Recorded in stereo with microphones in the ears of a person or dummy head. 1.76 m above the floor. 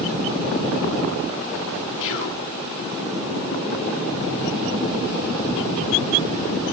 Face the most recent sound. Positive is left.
turn(degrees=70)  # may be behind; listen again after turning